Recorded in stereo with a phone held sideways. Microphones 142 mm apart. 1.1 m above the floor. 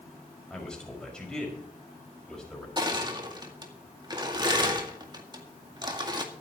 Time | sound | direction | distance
0.5 | a man speaking | 5° left (ahead or behind) | 5.5 m
2.8 | crushing | 30° right (ahead or behind) | 1.8 m